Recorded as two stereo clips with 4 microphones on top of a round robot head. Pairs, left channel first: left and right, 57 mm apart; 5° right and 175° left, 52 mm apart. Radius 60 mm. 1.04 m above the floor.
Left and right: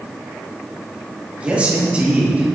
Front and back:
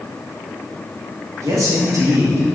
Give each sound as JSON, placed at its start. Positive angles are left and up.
{"t": 1.4, "sound": "a man speaking", "azimuth_deg": -160, "distance_m": 2.0}